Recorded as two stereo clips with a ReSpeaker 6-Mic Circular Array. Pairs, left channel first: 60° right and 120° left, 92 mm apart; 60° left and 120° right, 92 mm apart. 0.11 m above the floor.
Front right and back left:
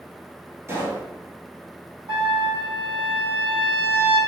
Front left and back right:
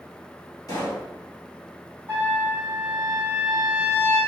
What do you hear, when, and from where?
0.7 s a pop: 75° left, 1.6 m
2.1 s a trumpet: 130° left, 2.0 m